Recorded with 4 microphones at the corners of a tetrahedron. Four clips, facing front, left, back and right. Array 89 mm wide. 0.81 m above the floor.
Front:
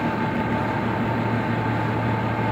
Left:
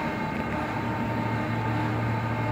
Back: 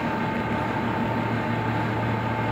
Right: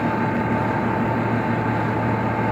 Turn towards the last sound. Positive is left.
No sound to turn to.